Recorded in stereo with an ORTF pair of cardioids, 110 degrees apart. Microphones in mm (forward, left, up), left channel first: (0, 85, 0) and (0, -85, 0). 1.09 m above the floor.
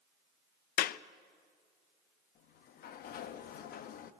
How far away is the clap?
About 0.6 m.